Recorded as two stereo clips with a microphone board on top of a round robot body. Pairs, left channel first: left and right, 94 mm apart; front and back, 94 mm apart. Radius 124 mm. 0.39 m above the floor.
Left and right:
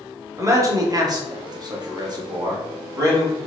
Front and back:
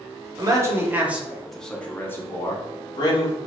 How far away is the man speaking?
About 1.2 m.